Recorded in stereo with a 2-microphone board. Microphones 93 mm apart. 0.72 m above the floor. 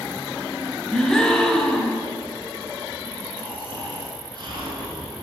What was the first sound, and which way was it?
A gasp, 5° left (ahead or behind).